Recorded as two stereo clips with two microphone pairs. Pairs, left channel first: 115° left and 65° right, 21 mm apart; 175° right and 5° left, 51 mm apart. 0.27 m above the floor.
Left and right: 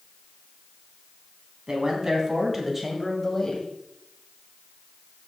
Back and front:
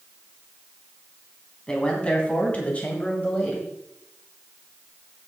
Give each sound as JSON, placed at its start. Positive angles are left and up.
{"t": 1.7, "sound": "a man speaking", "azimuth_deg": -110, "distance_m": 2.5}